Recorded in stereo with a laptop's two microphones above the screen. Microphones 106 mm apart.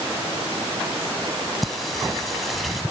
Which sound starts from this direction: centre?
Singing, at 1.6 s.